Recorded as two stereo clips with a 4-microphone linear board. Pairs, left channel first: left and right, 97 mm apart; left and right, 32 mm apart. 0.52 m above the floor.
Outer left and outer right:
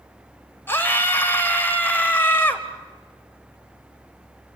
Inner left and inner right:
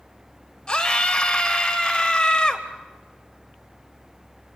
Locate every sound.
0.7 s a scream: 25° left (ahead or behind), 3 m